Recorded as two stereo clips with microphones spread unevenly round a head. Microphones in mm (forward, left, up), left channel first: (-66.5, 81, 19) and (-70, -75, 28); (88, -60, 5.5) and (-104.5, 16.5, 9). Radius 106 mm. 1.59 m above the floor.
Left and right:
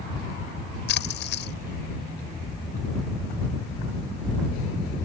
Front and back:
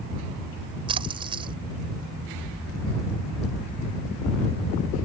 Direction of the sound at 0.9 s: 90° left.